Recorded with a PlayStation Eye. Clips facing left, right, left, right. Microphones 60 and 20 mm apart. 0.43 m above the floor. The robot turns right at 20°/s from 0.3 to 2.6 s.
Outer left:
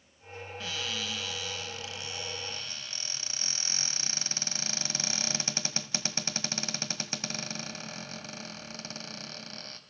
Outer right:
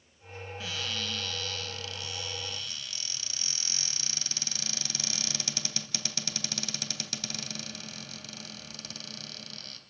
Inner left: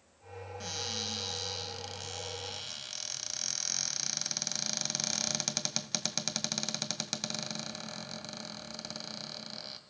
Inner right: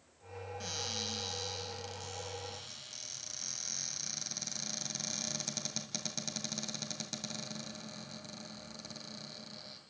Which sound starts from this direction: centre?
A cupboard door, at 0.6 s.